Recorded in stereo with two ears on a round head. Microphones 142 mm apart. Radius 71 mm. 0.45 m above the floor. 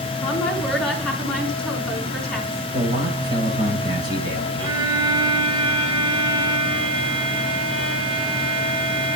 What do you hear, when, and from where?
0.2 s a woman speaking: 5° left (ahead or behind), 5.5 m
2.7 s a man speaking: 25° right (ahead or behind), 9 m
4.6 s a violin: 35° right (ahead or behind), 3 m